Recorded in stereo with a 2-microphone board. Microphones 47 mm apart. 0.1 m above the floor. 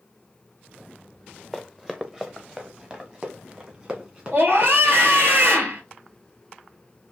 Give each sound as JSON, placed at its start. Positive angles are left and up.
{"t": 1.5, "sound": "running footsteps", "side_deg": -5, "distance_m": 0.5}
{"t": 4.3, "sound": "a scream", "side_deg": -50, "distance_m": 1.7}